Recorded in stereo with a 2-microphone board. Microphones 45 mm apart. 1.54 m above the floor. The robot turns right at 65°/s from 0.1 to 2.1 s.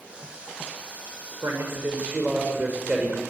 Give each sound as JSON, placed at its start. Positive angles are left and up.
{"t": 1.4, "sound": "a man speaking", "azimuth_deg": -75, "distance_m": 6.5}